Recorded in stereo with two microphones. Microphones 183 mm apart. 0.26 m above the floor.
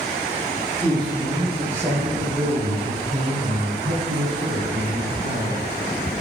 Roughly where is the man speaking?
Centre.